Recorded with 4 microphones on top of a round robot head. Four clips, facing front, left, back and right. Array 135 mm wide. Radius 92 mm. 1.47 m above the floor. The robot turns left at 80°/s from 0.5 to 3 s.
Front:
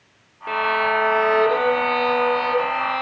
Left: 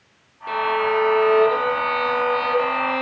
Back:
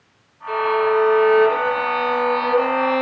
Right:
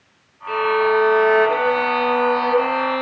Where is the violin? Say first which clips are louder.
Right 3 dB, back 3 dB; 20° left, 3 m; by 3.0 s straight behind, 3 m.